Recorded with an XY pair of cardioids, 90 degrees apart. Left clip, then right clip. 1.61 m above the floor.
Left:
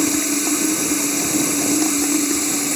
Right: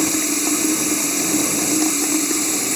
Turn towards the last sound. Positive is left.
turn(degrees=-5)